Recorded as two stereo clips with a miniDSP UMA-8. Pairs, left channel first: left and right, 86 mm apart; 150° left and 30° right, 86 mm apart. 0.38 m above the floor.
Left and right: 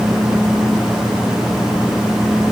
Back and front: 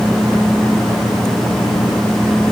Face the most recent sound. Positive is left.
No sound to turn to.